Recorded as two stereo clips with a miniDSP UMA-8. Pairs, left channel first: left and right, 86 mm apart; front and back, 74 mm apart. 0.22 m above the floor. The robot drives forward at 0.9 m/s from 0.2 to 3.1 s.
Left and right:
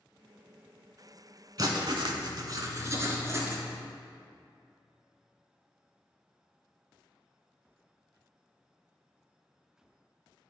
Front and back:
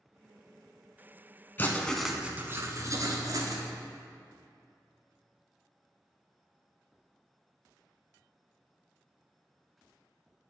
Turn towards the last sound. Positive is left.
turn(degrees=-145)